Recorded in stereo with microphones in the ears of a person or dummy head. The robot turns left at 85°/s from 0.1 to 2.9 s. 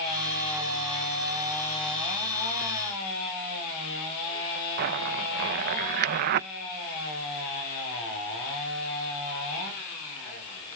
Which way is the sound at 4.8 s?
55° right (ahead or behind).